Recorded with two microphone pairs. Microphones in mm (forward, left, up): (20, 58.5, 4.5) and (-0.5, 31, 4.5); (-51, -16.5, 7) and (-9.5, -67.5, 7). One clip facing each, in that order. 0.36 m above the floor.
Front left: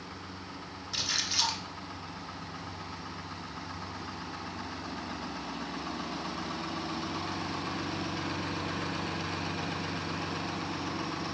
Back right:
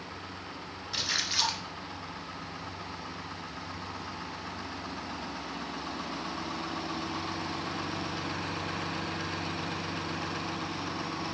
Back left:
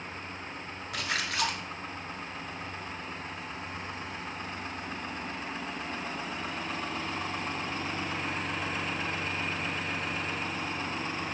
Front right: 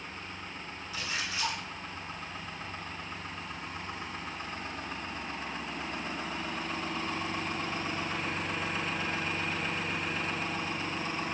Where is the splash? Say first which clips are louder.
Back right 1 dB, back left 4 dB; 155° left, 1.2 m.